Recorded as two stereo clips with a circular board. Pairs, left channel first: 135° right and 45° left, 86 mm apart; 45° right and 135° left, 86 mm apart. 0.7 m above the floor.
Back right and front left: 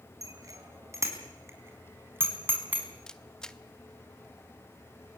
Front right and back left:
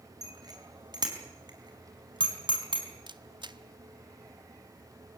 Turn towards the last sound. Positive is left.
turn(degrees=145)